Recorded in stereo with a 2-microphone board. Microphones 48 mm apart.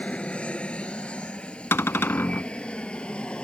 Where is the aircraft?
25° left (ahead or behind); by 3.4 s 20° left (ahead or behind).